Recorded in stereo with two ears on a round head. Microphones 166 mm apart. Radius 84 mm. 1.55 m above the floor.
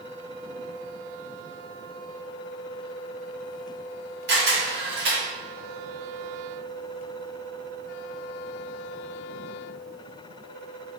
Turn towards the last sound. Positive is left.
turn(degrees=-55)  # may be behind; listen again after turning